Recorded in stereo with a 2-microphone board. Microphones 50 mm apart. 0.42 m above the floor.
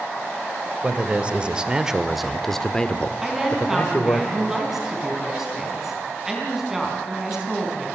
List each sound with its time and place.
0.8 s a man speaking: 30° right (ahead or behind), 1.7 m; by 4.2 s 45° left (ahead or behind), 1.5 m
3.2 s a woman speaking: 5° right (ahead or behind), 4.5 m